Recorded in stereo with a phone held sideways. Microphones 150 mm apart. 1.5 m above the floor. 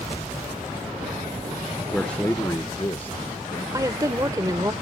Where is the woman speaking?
25° right (ahead or behind).